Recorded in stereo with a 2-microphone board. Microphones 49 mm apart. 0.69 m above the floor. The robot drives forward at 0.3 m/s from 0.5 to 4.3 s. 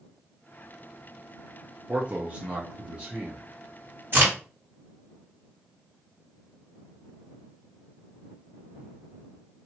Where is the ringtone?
I don't hear a ringtone.